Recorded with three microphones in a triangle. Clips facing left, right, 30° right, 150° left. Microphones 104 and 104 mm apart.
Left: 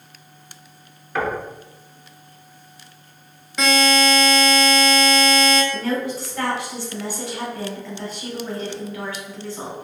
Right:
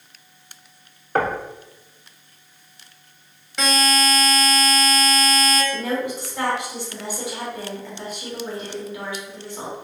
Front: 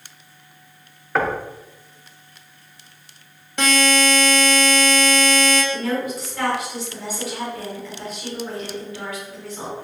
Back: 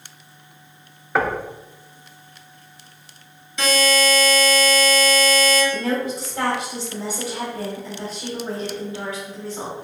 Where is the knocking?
125° right, 0.6 m.